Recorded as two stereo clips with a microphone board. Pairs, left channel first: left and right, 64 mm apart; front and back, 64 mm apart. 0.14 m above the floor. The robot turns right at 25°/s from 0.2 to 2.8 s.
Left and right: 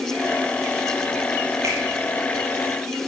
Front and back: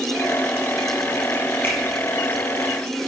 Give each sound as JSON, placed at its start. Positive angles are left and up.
{"t": 1.6, "sound": "a finger snap", "azimuth_deg": -50, "distance_m": 2.5}